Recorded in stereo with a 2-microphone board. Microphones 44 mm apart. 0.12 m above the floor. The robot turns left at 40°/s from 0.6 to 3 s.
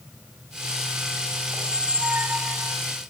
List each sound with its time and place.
1.5 s a squeak: 20° right, 0.9 m; by 2.8 s 70° right, 0.9 m